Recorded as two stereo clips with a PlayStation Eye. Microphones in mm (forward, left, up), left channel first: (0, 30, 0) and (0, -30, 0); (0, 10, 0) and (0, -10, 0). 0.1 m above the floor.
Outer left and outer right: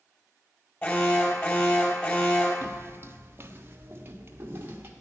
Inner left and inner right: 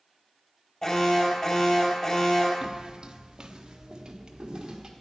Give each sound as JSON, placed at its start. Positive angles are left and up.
{"t": 0.8, "sound": "an alarm", "side_deg": 35, "distance_m": 4.0}
{"t": 2.6, "sound": "footsteps", "side_deg": -45, "distance_m": 0.6}